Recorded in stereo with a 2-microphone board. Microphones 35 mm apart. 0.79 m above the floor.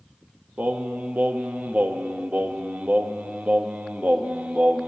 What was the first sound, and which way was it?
Singing, 55° right (ahead or behind).